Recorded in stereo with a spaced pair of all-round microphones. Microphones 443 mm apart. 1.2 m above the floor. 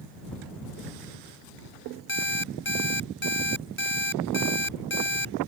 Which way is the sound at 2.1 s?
25° left (ahead or behind).